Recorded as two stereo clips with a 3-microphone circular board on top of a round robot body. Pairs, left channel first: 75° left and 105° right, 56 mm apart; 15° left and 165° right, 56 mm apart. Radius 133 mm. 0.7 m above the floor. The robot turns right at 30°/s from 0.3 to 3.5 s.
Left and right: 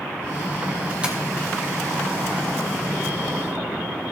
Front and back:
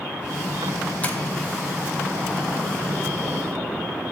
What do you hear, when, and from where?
1.0 s tapping: 40° right, 1.5 m; by 1.2 s 35° right, 1.5 m